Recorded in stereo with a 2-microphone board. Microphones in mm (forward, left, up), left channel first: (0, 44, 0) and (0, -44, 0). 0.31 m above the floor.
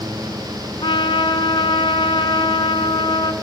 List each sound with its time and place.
0.8 s a trumpet: 85° left, 0.9 m